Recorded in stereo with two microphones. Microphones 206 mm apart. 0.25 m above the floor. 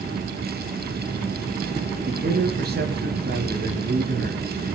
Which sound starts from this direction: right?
A man speaking, at 2.0 s.